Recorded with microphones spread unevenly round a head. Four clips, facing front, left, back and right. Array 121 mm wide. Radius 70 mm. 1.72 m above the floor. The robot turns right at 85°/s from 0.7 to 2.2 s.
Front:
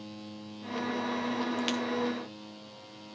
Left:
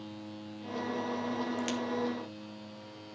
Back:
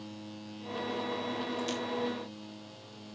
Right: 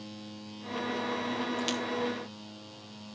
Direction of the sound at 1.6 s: 15° right.